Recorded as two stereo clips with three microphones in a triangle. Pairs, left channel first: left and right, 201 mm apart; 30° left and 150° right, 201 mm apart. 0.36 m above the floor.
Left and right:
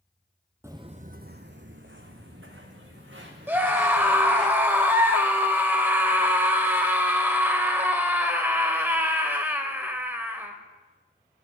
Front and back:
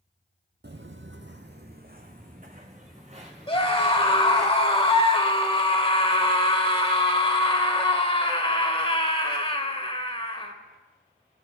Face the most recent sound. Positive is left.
turn(degrees=-15)